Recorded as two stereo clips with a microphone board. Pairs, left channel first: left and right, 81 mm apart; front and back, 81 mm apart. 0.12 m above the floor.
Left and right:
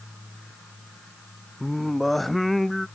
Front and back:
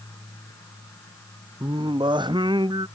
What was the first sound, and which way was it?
Singing, straight behind.